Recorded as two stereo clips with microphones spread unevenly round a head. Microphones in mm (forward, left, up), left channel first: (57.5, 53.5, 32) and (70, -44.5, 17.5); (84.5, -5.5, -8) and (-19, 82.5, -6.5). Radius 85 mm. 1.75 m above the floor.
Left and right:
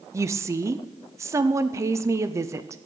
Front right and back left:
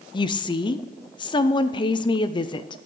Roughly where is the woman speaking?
Ahead right.